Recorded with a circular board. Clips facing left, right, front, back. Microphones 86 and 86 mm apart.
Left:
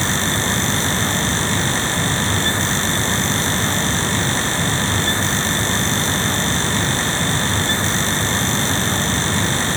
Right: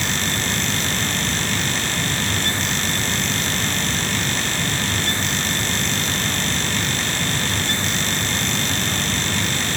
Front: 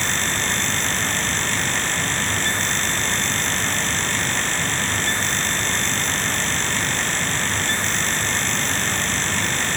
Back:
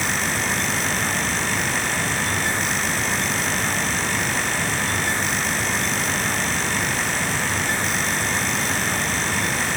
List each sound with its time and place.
Only background noise.